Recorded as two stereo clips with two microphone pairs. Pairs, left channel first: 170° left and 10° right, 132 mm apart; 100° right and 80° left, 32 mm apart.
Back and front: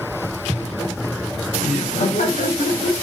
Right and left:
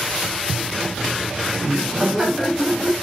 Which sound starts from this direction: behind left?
Laughter, at 1.6 s.